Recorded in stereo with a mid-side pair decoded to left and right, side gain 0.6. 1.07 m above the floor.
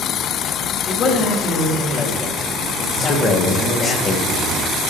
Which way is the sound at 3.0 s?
45° left.